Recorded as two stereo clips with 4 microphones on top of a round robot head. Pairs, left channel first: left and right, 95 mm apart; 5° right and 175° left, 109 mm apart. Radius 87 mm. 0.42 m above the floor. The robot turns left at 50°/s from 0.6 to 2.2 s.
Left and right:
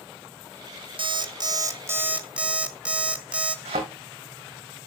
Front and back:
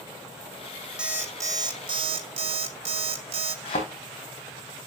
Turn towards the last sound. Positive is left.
turn(degrees=-55)